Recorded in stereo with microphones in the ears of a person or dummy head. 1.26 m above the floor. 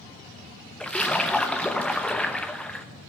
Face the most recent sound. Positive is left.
turn(degrees=5)  # may be behind; listen again after turning